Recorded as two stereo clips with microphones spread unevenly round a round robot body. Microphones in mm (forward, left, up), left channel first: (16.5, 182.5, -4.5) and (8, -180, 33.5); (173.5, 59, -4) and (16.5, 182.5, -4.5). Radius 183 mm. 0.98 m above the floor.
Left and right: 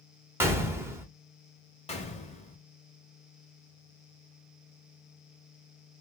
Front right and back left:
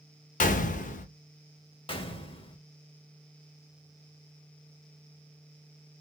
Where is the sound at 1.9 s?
20° left, 1.2 m.